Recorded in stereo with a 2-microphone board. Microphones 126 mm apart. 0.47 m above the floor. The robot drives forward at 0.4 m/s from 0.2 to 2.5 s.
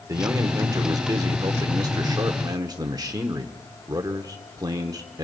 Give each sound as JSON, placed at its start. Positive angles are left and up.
{"t": 0.1, "sound": "a man speaking", "side_deg": -25, "distance_m": 1.4}